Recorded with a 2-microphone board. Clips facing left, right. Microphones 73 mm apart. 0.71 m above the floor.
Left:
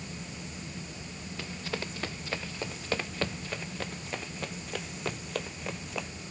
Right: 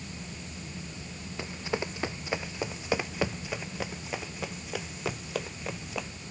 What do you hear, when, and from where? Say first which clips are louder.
1.4 s running footsteps: right 4 dB; 20° right (ahead or behind); by 6.1 s 5° right (ahead or behind)